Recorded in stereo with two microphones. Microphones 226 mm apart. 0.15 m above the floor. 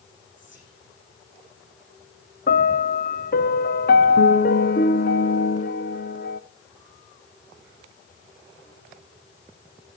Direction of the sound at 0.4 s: 55° left (ahead or behind).